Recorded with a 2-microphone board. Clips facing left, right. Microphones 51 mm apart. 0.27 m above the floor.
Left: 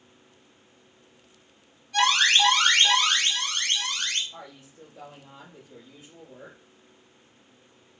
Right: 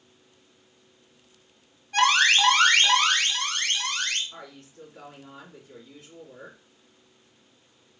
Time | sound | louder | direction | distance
1.9 | an alarm | right 1 dB | 40° right (ahead or behind) | 1.9 m
4.3 | a woman speaking | even | 65° right (ahead or behind) | 2.5 m